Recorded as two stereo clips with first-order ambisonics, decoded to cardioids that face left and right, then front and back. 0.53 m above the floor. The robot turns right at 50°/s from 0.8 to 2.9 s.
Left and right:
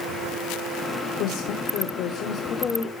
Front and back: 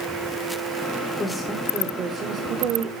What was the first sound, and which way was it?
A woman speaking, 75° left.